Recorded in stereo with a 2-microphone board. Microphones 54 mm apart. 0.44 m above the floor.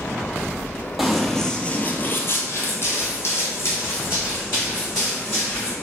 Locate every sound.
1.0 s running footsteps: 5° right (ahead or behind), 0.6 m; by 5.7 s 45° left (ahead or behind), 2.5 m